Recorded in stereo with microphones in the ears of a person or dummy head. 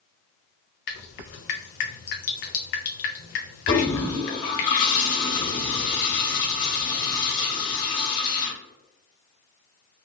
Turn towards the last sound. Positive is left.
turn(degrees=55)  # may be behind; listen again after turning